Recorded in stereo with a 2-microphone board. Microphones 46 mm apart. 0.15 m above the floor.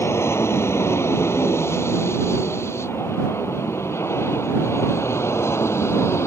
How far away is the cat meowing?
I don't hear a cat meowing.